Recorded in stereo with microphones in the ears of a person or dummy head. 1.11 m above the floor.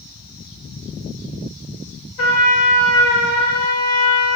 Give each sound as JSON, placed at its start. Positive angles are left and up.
{"t": 2.2, "sound": "a trumpet", "side_deg": 70, "distance_m": 0.9}